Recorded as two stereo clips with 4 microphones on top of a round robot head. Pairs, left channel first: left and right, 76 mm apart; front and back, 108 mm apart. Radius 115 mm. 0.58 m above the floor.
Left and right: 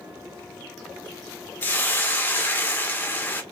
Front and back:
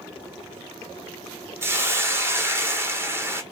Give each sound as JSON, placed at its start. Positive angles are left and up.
{"t": 1.6, "sound": "a hiss", "azimuth_deg": 135, "distance_m": 1.3}